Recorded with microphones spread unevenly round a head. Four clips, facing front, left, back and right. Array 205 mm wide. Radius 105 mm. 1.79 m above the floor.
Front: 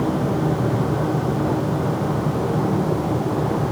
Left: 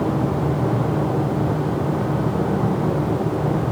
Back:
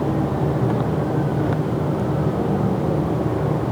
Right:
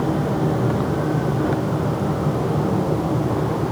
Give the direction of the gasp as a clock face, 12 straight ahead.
I don't hear a gasp.